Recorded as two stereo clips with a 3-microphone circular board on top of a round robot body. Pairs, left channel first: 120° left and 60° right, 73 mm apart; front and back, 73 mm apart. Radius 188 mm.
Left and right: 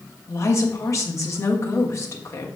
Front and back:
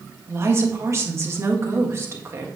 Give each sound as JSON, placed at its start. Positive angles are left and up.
{"t": 0.3, "sound": "a woman speaking", "azimuth_deg": 145, "distance_m": 1.5}